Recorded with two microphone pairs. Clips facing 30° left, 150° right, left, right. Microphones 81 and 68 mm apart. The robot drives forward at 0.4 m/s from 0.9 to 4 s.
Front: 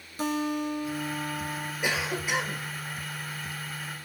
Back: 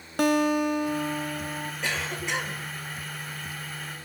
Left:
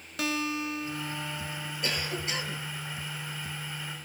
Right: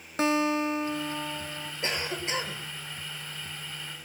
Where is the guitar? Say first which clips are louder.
Back 6 dB, right 6 dB; 145° right, 0.9 m; by 1.7 s 155° right, 1.2 m.